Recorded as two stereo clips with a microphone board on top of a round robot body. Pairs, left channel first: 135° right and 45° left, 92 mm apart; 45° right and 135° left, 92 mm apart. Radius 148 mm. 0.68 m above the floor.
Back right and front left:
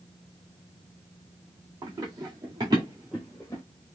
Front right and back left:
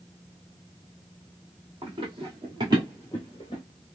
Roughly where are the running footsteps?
Left.